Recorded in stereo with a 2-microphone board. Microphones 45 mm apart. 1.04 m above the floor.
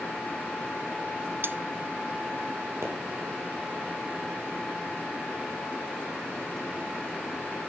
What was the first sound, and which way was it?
Cutlery clinking, 55° right (ahead or behind).